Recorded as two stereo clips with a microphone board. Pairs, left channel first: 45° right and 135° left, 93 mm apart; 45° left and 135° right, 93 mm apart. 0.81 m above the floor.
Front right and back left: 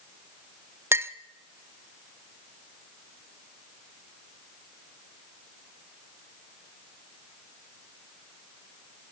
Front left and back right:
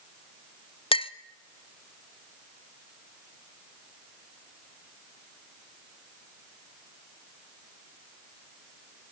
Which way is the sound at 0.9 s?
70° left.